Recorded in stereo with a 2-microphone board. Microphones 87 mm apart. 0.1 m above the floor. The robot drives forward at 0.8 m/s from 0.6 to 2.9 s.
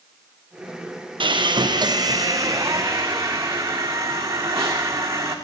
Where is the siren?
No siren in this recording.